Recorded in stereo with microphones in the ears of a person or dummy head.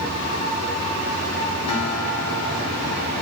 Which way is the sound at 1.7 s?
40° left (ahead or behind).